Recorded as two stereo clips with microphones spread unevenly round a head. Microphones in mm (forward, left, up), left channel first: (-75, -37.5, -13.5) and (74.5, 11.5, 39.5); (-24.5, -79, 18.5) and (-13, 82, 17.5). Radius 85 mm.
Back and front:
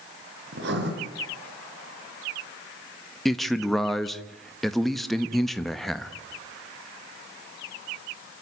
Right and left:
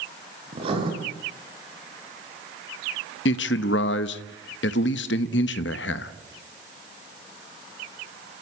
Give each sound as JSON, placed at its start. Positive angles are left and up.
{"t": 0.5, "sound": "writing", "azimuth_deg": 25, "distance_m": 6.0}
{"t": 3.2, "sound": "a man speaking", "azimuth_deg": -75, "distance_m": 1.1}